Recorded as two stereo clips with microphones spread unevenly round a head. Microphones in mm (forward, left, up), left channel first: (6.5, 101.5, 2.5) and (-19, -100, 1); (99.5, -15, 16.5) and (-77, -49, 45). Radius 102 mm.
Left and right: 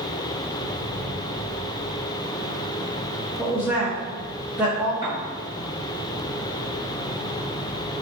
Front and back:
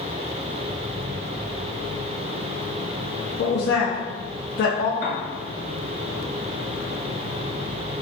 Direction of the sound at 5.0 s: 25° right.